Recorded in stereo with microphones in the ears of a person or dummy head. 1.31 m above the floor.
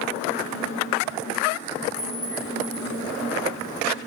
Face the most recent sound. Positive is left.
turn(degrees=-25)  # may be behind; listen again after turning